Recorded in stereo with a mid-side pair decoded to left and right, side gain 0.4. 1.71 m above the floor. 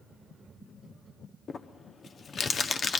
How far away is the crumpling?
About 1.1 m.